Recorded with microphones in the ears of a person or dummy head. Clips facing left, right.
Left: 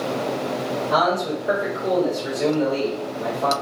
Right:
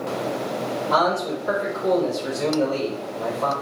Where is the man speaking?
75° right (ahead or behind), 1.8 m.